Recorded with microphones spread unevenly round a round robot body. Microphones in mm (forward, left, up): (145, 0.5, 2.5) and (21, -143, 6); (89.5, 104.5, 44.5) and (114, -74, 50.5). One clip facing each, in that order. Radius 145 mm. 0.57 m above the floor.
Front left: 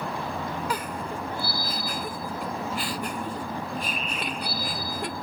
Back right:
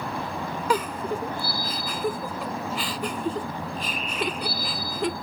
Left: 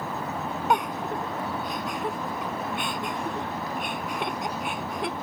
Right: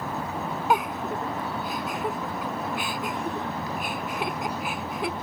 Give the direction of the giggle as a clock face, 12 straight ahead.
6 o'clock.